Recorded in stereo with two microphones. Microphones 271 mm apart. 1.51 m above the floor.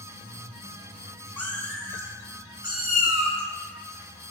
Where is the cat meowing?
5° left (ahead or behind), 1.7 m; by 4.3 s 45° right (ahead or behind), 1.7 m.